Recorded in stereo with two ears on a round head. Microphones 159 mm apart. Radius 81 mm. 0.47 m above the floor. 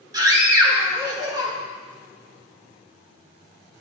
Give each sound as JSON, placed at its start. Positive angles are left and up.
{"t": 0.1, "sound": "a scream", "side_deg": -20, "distance_m": 1.1}